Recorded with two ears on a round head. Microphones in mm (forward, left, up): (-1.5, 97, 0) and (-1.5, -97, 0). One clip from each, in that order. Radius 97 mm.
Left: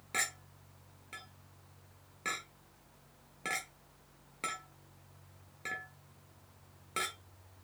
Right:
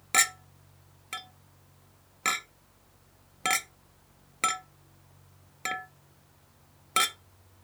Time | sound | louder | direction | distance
0.1 | a clink | right 10 dB | 40° right (ahead or behind) | 0.6 m